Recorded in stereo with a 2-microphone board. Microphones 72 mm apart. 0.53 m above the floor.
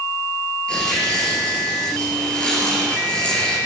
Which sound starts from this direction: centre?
Tearing paper, at 0.7 s.